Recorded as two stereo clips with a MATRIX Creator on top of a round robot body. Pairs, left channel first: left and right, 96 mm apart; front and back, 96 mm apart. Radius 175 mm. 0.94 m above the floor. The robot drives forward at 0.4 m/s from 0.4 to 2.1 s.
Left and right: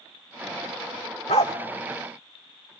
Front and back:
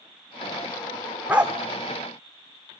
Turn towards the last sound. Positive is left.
turn(degrees=150)